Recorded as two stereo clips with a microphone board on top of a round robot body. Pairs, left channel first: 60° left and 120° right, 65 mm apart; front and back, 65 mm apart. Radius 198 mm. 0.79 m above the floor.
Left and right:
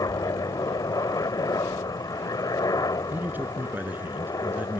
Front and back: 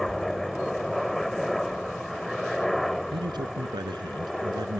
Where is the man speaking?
175° left.